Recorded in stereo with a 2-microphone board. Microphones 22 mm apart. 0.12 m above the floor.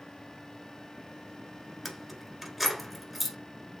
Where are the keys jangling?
5° right (ahead or behind), 1.1 m.